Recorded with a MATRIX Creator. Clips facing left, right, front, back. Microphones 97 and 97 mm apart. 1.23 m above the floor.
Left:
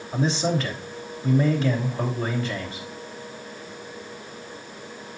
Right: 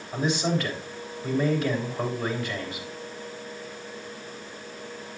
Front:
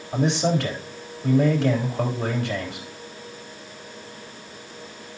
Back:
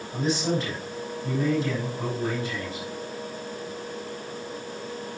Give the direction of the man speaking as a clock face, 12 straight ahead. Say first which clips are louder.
Left 2 dB, front 4 dB; 11 o'clock.